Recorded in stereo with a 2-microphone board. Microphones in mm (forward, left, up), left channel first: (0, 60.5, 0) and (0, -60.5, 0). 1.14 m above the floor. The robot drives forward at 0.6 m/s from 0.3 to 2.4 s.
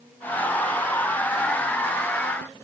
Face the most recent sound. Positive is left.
No sound to turn to.